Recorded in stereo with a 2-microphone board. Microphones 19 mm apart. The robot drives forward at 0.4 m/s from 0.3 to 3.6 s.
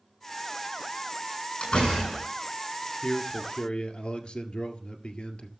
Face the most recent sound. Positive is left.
turn(degrees=70)  # may be behind; listen again after turning